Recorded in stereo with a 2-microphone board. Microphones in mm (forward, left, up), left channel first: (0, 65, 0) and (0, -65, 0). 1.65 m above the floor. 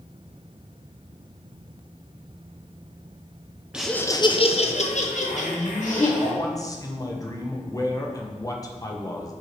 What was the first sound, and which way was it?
Laughter, 10° right (ahead or behind).